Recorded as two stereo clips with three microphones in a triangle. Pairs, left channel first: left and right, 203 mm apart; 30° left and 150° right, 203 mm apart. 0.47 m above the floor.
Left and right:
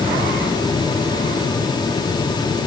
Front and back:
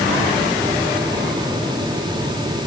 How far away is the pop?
No pop in this recording.